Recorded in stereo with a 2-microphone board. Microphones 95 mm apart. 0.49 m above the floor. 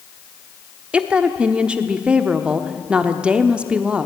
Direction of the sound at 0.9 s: 10° right (ahead or behind).